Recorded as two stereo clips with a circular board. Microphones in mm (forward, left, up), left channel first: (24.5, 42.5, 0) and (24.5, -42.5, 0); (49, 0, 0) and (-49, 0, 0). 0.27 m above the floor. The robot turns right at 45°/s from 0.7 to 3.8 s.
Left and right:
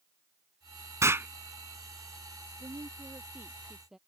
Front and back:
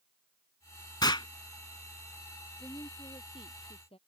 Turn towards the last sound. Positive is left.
turn(degrees=-5)